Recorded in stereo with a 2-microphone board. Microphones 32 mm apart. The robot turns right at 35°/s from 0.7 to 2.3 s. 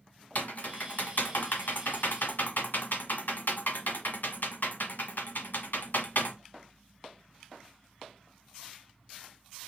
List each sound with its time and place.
0.3 s typing on a keyboard: 50° left (ahead or behind), 1.1 m; by 6.4 s 75° left (ahead or behind), 1.1 m